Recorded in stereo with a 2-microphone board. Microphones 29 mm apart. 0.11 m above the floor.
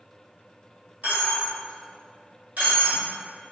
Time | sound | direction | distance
1.0 | a dropped coin | 65° right (ahead or behind) | 1.5 m